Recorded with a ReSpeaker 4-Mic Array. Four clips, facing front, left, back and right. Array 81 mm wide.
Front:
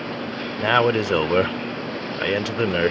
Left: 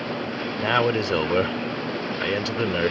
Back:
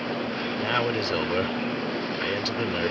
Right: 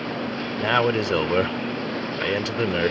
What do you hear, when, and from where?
0.6 s a man speaking: 5° right